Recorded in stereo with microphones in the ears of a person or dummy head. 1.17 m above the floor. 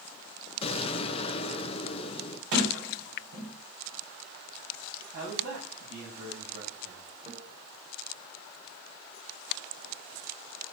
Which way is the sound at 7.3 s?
30° right (ahead or behind).